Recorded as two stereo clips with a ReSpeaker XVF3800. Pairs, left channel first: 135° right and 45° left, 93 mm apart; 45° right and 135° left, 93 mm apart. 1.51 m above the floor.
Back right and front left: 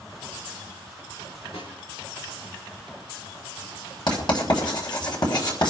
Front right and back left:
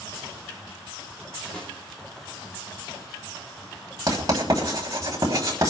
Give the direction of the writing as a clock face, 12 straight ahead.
6 o'clock.